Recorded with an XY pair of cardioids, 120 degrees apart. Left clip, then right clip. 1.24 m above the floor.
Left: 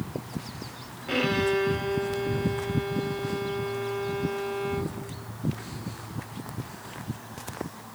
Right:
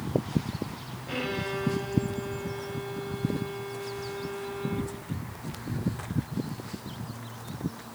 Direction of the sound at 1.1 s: 35° left.